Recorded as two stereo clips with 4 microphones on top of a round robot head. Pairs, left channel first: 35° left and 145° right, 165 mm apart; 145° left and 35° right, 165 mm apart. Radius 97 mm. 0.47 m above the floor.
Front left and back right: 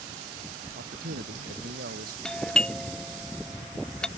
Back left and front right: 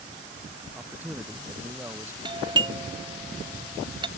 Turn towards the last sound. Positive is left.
turn(degrees=-45)